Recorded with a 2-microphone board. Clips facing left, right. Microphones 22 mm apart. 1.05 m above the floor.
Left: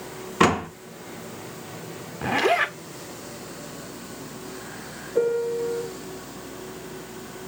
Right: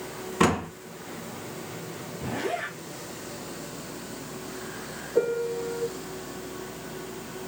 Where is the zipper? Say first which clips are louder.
Left 10 dB; 75° left (ahead or behind), 0.8 m.